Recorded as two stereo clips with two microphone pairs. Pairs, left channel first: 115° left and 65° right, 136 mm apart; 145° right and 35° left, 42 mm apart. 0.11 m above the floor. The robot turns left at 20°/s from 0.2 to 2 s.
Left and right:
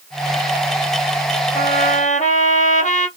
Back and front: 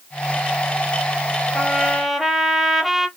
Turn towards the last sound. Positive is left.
turn(degrees=115)